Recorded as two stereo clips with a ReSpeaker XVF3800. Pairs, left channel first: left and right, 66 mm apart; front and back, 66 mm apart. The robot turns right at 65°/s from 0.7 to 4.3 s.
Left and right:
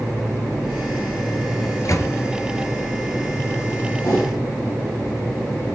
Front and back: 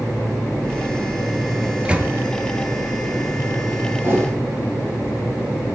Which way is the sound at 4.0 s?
125° left.